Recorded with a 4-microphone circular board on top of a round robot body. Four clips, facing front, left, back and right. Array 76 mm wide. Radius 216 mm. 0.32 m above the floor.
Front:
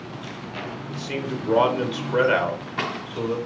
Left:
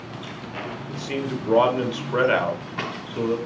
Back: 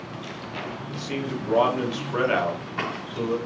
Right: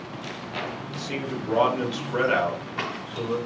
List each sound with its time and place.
0.9 s a man speaking: 70° left, 1.3 m